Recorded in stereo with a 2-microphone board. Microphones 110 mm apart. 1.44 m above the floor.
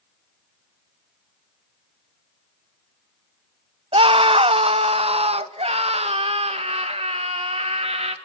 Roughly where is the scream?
Right.